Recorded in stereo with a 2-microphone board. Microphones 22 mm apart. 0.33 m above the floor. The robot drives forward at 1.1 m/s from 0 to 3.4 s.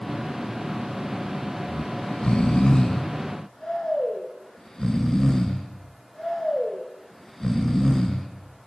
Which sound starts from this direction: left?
Snoring, at 1.7 s.